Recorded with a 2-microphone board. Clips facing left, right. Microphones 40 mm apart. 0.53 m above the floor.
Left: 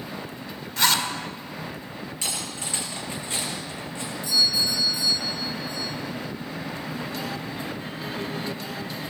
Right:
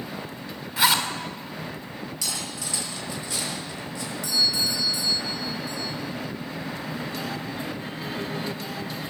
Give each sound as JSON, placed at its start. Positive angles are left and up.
{"t": 0.8, "sound": "a zipper", "side_deg": -10, "distance_m": 2.0}
{"t": 2.2, "sound": "cutlery clinking", "side_deg": 35, "distance_m": 6.0}
{"t": 4.2, "sound": "a doorbell", "side_deg": -80, "distance_m": 7.5}